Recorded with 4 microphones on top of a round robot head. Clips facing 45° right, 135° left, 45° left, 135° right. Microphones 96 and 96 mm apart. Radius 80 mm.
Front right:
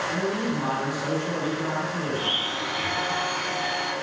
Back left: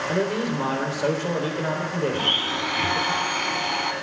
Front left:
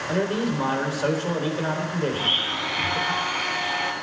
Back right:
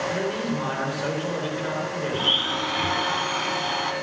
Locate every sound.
0.1 s a man speaking: 105° left, 4 m
2.1 s a blender: 170° left, 1.7 m